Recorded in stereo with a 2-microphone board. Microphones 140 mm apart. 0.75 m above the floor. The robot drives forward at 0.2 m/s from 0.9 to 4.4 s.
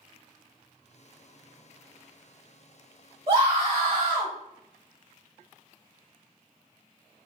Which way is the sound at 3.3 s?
40° right (ahead or behind).